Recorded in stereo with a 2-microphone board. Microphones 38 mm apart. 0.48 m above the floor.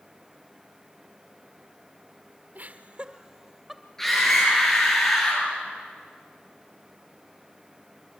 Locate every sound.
2.5 s laughter: 50° right (ahead or behind), 1.2 m; by 3.8 s centre (ahead or behind), 2 m
4.0 s a scream: 10° left (ahead or behind), 9.5 m